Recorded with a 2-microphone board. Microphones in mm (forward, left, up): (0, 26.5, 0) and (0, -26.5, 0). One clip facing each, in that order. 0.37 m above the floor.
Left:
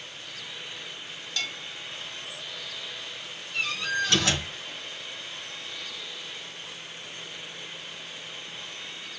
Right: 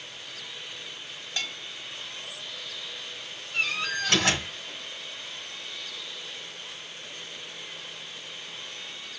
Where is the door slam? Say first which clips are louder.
Even; 35° right (ahead or behind), 4 m.